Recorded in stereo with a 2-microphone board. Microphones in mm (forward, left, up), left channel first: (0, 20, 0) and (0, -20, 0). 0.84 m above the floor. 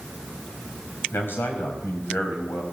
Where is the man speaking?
65° left (ahead or behind), 4.5 m.